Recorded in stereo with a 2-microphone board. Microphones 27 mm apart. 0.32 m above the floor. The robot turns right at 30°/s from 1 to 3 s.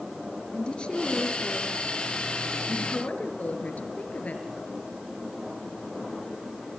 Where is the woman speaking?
40° left, 5 m; by 4.5 s 100° left, 5 m.